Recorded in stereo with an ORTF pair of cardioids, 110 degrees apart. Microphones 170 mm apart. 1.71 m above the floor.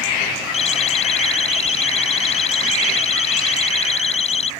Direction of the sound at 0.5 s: 35° left.